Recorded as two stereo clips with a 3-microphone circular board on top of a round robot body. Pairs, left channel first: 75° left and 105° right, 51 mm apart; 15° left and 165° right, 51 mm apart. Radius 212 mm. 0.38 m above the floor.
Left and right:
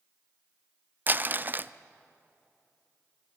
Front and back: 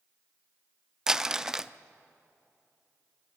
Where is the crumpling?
90° right, 0.8 m.